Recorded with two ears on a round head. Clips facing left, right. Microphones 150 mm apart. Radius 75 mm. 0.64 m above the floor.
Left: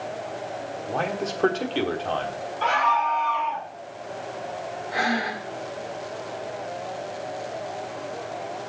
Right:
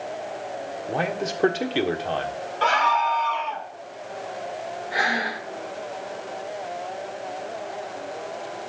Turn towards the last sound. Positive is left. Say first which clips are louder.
# left 2 dB
turn(degrees=-5)  # may be behind; listen again after turning